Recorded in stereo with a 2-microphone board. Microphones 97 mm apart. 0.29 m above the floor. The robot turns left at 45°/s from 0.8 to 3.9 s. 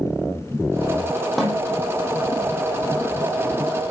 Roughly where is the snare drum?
Centre.